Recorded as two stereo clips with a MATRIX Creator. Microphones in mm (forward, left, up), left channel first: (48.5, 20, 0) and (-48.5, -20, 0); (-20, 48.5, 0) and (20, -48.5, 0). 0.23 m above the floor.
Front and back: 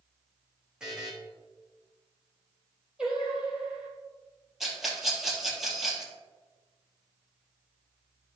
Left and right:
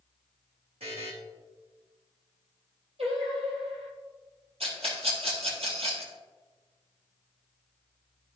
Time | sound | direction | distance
0.8 | a buzzer | 75° right | 3 m
3.0 | singing | 75° right | 2.5 m
4.6 | a rattle | 70° right | 3 m